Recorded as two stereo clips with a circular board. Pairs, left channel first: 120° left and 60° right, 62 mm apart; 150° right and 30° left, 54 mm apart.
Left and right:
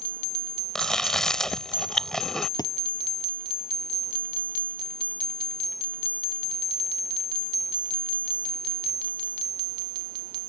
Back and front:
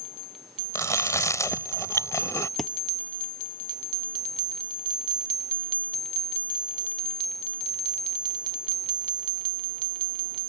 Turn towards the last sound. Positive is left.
turn(degrees=120)